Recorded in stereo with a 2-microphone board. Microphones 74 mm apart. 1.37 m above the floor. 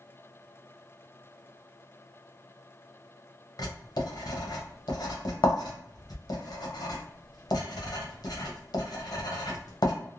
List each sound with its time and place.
3.6 s writing: 65° left (ahead or behind), 0.7 m